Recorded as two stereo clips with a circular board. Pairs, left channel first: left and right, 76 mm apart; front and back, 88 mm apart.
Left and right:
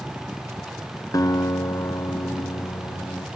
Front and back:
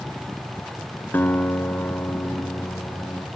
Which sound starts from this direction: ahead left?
A guitar, at 1.1 s.